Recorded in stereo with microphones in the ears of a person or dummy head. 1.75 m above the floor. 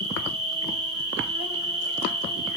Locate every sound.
0.0 s an insect: 25° right (ahead or behind), 2 m